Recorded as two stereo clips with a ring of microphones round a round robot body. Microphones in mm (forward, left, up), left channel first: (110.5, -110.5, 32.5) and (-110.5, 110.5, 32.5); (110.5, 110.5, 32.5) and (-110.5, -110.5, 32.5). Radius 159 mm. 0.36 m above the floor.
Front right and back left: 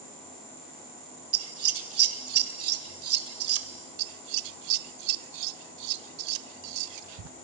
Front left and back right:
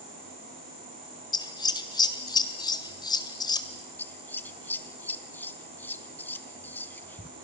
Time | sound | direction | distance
1.3 | scissors | 120° left | 1.7 m
4.0 | scissors | 130° left | 0.5 m